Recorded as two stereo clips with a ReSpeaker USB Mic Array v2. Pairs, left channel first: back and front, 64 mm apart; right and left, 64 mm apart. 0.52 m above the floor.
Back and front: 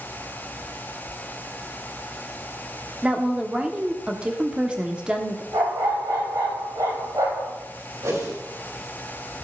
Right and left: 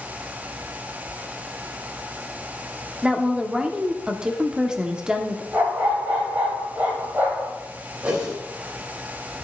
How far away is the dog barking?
About 4 m.